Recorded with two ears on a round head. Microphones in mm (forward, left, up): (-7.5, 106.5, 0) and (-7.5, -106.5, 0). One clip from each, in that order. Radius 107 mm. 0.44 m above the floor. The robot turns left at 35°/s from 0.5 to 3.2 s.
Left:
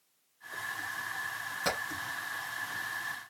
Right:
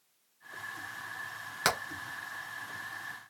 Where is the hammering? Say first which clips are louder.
Right 4 dB; 80° right, 2 m; by 1.8 s 85° right, 2 m.